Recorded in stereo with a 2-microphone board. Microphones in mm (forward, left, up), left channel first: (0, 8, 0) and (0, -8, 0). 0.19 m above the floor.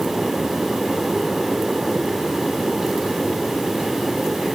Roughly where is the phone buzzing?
I don't hear a phone buzzing.